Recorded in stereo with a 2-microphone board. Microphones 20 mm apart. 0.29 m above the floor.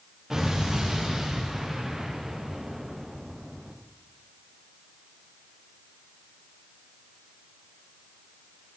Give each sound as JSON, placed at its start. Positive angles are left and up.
{"t": 0.3, "sound": "an explosion", "side_deg": -15, "distance_m": 8.5}